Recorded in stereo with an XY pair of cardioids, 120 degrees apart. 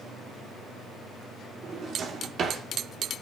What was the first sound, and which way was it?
A drawer, 50° right.